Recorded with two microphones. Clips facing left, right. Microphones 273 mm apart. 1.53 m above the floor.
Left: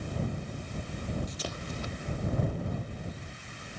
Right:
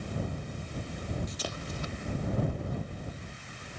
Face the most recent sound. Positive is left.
No sound to turn to.